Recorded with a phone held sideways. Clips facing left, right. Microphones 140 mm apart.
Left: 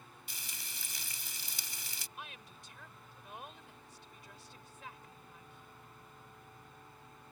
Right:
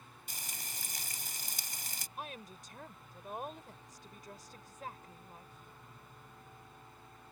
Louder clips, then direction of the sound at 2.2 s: Right 7 dB; 45° right (ahead or behind).